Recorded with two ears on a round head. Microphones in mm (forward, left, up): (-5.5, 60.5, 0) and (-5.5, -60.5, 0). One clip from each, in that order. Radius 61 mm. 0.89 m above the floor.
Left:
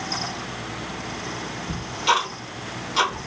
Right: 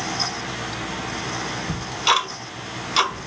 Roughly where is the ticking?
Right.